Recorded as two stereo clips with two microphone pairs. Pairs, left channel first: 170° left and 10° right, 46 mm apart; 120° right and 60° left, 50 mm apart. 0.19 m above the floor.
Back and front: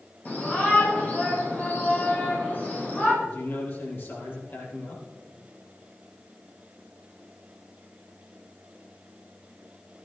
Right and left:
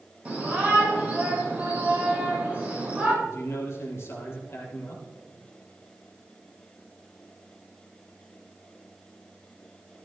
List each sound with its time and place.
0.2 s a shout: 120° left, 7 m
3.2 s a man speaking: 160° right, 5.5 m